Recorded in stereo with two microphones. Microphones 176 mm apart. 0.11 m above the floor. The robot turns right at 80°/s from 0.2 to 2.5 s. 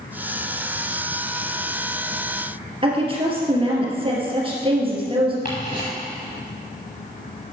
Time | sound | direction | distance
2.8 | a woman speaking | 30° right (ahead or behind) | 2.5 m
5.5 | ticking | 55° left (ahead or behind) | 4 m